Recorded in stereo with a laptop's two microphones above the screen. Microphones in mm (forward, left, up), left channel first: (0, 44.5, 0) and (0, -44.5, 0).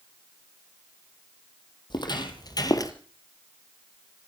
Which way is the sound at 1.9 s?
60° left (ahead or behind).